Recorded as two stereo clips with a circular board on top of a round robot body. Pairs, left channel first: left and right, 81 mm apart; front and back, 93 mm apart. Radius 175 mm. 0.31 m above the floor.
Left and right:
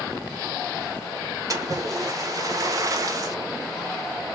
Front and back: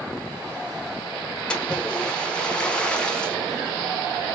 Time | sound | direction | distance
1.5 | a splash | 75° right | 1.3 m